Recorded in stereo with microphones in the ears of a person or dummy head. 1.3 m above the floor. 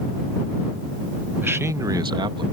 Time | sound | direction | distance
1.4 | a man speaking | 10° right (ahead or behind) | ?